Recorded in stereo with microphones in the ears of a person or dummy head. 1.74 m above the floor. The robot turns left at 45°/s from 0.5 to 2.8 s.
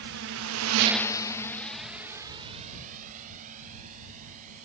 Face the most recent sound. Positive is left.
turn(degrees=-40)  # may be behind; listen again after turning